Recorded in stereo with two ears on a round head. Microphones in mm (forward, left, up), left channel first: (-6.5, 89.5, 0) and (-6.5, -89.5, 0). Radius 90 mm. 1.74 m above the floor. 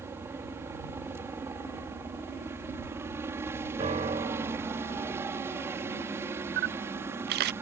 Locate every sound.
0.0 s a helicopter: 15° right (ahead or behind)
3.8 s a piano: 30° right (ahead or behind)
6.6 s a camera shutter: 55° right (ahead or behind)